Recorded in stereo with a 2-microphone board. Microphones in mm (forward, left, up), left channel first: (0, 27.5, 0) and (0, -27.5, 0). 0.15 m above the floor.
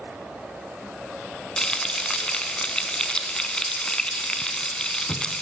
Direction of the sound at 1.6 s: 15° left (ahead or behind).